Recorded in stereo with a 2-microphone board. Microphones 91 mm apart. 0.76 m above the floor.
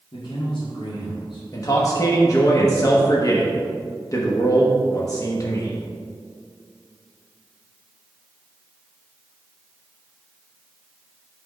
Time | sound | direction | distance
0.1 | a man speaking | 55° left (ahead or behind) | 1.6 m
1.5 | a man speaking | 40° left (ahead or behind) | 1.0 m